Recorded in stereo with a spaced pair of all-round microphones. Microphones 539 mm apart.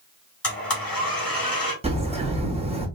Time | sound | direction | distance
0.4 | a blender | 40° left (ahead or behind) | 1.9 m
1.8 | a bird | 10° right (ahead or behind) | 1.1 m